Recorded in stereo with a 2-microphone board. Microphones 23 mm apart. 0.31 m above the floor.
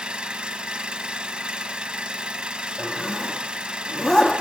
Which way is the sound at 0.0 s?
50° right (ahead or behind).